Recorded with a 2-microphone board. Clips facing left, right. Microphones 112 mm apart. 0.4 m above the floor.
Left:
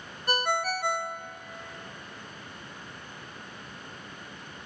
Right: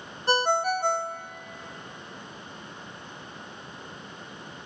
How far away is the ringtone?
About 0.5 m.